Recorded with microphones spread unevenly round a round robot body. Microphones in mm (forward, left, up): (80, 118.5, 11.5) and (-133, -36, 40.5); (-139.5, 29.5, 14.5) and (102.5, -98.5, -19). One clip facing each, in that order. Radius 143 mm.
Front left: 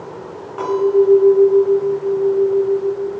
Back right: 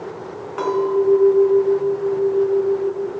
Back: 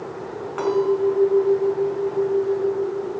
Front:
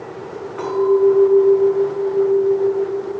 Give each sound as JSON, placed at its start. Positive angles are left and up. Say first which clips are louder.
{"t": 0.6, "sound": "a clink", "louder": "front left 4 dB, front 5 dB", "azimuth_deg": 165, "distance_m": 5.5}